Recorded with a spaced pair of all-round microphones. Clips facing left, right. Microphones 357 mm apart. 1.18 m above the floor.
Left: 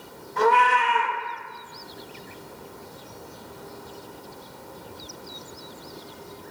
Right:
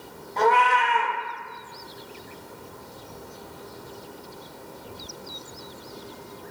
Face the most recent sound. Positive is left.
turn(degrees=20)  # may be behind; listen again after turning